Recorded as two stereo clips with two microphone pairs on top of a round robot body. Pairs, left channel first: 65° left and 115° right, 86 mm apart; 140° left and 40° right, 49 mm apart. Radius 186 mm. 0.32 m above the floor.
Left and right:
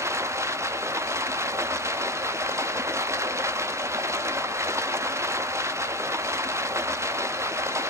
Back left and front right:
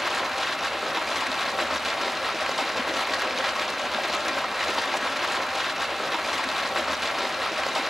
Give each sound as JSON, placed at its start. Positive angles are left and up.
{"t": 0.0, "sound": "running water", "azimuth_deg": -110, "distance_m": 0.9}